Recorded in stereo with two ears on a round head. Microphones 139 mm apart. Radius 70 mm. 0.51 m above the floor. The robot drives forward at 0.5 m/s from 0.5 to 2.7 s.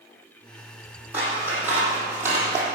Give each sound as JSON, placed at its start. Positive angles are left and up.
{"t": 1.1, "sound": "scissors", "side_deg": -10, "distance_m": 4.0}